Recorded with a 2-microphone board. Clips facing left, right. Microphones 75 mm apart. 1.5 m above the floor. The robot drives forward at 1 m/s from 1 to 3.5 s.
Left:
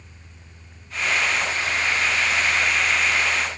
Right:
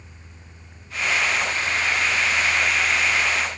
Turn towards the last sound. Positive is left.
No sound to turn to.